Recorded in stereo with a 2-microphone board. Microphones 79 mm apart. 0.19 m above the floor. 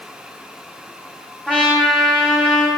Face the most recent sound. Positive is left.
turn(degrees=15)  # may be behind; listen again after turning